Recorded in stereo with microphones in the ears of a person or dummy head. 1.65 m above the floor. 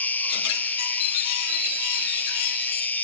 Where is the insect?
10° left (ahead or behind).